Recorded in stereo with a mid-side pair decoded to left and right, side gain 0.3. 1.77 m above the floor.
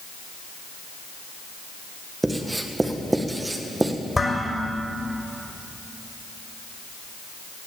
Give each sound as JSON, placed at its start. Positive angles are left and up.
{"t": 2.2, "sound": "writing", "azimuth_deg": -20, "distance_m": 1.8}
{"t": 4.2, "sound": "dishes clattering", "azimuth_deg": 30, "distance_m": 5.5}